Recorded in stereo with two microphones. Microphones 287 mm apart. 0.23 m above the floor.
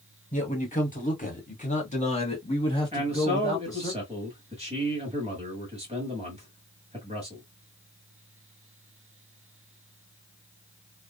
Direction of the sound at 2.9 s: 20° right (ahead or behind).